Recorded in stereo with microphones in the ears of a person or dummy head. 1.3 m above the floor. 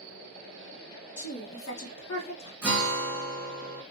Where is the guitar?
5° right (ahead or behind), 1.4 m.